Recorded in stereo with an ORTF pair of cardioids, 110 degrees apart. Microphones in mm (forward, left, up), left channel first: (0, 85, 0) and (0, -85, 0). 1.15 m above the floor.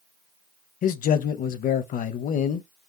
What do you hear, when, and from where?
0.8 s a man speaking: 55° left, 0.7 m